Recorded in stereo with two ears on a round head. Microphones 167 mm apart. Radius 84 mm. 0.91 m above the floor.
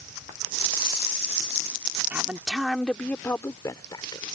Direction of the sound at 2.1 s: 10° right (ahead or behind).